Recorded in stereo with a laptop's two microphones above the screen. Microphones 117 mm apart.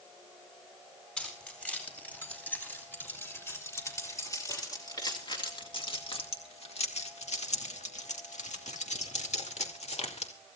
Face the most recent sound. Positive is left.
turn(degrees=65)  # may be behind; listen again after turning